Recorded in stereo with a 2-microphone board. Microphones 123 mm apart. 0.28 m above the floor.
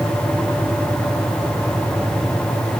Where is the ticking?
I don't hear ticking.